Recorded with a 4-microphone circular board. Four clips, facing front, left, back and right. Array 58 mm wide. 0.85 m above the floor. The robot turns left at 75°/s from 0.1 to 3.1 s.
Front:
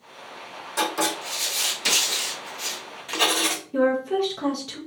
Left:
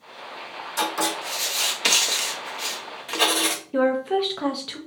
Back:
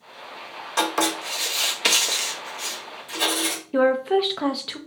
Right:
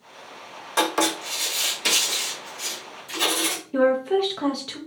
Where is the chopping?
No chopping in this recording.